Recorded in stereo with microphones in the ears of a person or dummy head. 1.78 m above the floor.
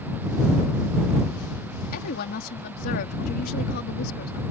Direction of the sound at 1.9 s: 60° left (ahead or behind).